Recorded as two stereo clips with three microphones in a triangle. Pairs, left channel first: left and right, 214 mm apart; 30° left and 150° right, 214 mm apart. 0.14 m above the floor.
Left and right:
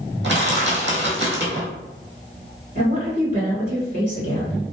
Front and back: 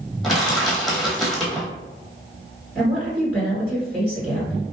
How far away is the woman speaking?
About 1.9 m.